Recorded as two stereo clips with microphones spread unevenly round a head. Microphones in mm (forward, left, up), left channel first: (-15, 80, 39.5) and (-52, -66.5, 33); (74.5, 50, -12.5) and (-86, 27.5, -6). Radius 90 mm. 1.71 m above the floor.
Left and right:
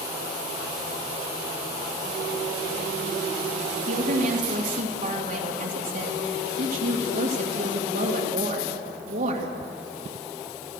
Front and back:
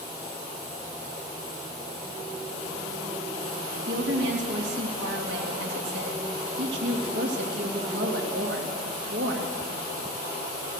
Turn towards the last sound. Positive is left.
turn(degrees=-135)